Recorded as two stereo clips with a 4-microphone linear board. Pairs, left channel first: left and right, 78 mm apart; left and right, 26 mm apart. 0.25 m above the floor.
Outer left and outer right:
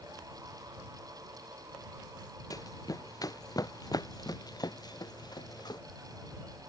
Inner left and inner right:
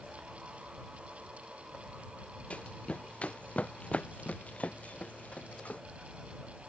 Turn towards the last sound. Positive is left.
turn(degrees=55)  # may be behind; listen again after turning